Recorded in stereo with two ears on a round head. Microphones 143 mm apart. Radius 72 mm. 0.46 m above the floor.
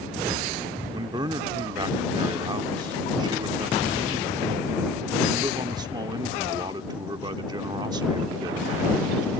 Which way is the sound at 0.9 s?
25° right (ahead or behind).